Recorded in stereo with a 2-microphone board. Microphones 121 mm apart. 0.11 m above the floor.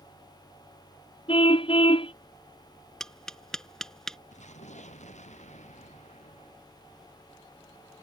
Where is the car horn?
50° left (ahead or behind).